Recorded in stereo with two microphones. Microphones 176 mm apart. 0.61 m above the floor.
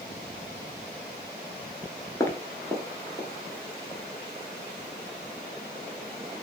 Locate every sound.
2.2 s footsteps: 20° left (ahead or behind), 0.5 m; by 3.3 s 30° right (ahead or behind), 1.1 m